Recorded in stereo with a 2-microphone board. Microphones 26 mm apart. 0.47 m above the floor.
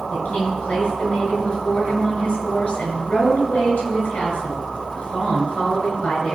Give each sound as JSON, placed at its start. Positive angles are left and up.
{"t": 0.1, "sound": "a woman speaking", "side_deg": 75, "distance_m": 6.0}